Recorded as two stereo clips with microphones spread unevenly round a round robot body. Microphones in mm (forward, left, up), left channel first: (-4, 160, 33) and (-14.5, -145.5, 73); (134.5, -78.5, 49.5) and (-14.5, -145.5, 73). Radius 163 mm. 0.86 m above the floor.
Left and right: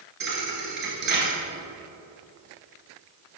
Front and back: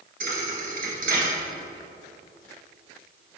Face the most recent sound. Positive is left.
turn(degrees=-145)